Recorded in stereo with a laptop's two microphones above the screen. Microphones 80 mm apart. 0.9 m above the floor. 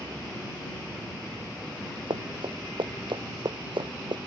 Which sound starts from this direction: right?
Running footsteps, at 2.1 s.